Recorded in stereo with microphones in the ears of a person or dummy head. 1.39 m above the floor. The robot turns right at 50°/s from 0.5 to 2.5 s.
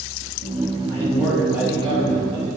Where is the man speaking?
160° left, 1.9 m; by 2.6 s 120° right, 1.9 m.